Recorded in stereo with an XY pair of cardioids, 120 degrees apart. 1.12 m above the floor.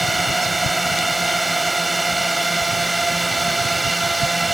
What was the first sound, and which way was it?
A drone, 10° right.